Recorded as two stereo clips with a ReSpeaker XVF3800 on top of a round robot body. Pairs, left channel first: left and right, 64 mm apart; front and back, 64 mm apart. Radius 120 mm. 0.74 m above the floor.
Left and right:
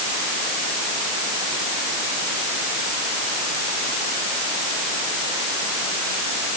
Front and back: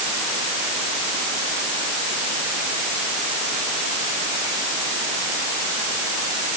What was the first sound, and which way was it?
Only background noise.